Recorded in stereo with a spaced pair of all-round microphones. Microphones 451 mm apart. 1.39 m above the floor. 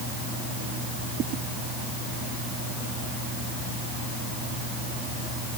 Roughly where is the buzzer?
No buzzer in this recording.